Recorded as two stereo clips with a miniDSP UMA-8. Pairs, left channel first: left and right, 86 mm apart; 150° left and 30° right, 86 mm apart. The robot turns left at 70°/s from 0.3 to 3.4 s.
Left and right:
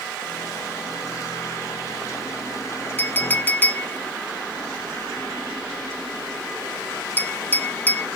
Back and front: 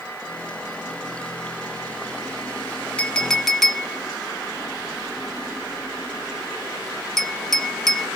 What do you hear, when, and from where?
3.0 s a clink: 100° left, 0.6 m; by 8.1 s 70° left, 0.6 m